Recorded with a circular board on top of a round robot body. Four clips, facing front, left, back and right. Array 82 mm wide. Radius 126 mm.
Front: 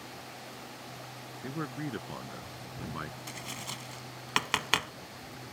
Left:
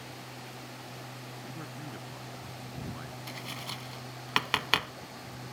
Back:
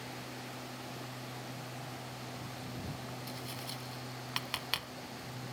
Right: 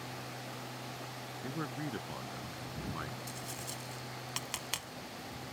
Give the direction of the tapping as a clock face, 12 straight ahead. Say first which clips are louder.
Left 3 dB, front 1 dB; 10 o'clock.